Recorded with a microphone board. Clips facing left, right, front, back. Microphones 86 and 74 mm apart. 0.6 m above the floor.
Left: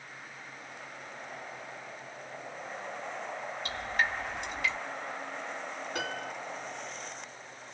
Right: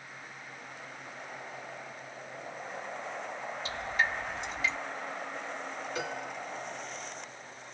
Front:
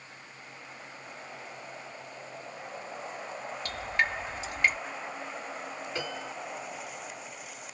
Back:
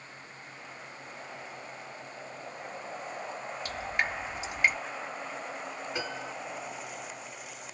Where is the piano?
110° left, 1.8 m.